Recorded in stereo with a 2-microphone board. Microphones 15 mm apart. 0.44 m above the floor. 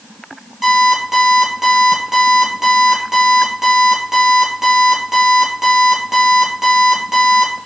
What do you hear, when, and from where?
0.6 s an alarm clock: 5° right (ahead or behind), 6.5 m